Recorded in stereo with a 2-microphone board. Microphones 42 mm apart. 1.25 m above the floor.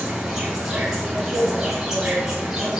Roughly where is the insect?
Centre.